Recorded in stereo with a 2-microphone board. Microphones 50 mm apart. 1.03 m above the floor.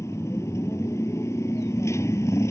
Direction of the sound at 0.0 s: 80° left.